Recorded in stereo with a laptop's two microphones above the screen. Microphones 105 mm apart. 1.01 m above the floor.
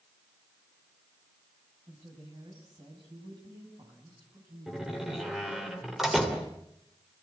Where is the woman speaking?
55° right (ahead or behind), 6.5 m; by 5.7 s 45° right (ahead or behind), 8.5 m.